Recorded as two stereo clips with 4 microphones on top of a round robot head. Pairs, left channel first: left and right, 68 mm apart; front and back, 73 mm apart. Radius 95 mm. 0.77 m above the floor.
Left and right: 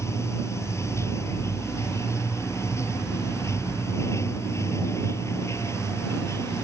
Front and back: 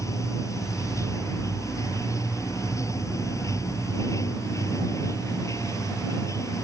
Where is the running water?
45° left.